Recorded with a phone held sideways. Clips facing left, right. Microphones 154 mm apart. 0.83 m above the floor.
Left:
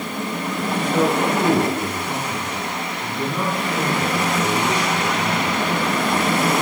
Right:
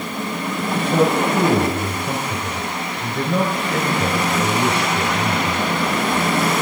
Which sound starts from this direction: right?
A man speaking, at 0.7 s.